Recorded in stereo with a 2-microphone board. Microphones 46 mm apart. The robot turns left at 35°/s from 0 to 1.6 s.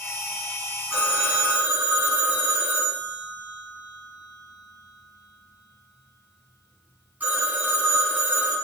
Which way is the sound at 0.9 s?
10° right (ahead or behind).